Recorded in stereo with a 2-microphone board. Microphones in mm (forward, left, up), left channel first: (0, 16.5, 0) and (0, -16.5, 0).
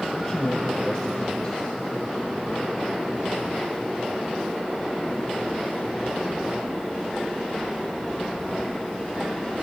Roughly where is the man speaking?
Centre.